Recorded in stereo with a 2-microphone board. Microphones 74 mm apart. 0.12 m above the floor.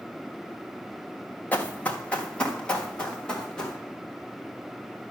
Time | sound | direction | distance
1.5 | running footsteps | 20° left (ahead or behind) | 1.8 m